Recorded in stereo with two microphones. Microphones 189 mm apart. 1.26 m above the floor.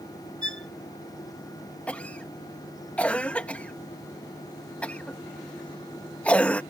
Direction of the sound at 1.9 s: 5° left (ahead or behind).